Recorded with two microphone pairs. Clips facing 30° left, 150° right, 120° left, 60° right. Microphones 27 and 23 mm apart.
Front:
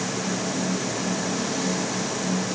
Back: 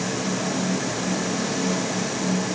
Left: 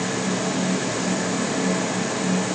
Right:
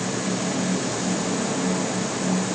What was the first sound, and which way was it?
Only background noise.